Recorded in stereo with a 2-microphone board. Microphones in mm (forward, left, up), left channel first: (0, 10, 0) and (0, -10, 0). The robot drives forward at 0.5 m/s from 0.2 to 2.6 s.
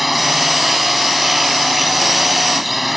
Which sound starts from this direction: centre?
A drone, at 0.0 s.